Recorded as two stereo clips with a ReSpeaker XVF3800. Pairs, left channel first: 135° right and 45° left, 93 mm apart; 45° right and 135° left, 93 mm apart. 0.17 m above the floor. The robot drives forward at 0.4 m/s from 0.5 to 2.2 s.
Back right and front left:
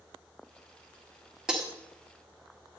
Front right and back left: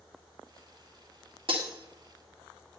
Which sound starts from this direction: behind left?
Breaking glass, at 1.5 s.